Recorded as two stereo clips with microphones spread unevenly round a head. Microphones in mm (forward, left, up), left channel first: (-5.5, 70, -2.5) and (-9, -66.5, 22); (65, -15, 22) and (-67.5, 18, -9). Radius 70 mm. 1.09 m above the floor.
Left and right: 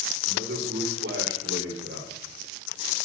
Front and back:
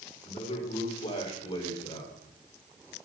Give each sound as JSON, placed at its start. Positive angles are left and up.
{"t": 0.3, "sound": "a man speaking", "azimuth_deg": -60, "distance_m": 4.5}